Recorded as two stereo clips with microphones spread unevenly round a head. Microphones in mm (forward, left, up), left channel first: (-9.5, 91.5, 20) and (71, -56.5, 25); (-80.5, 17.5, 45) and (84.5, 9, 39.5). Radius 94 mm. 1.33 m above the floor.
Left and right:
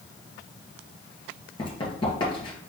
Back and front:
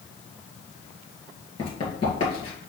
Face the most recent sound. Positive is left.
turn(degrees=155)